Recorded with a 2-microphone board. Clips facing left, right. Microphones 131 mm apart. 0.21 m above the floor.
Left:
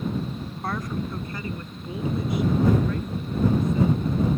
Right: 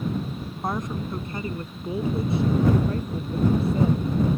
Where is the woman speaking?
20° right (ahead or behind); by 4.3 s 35° right (ahead or behind).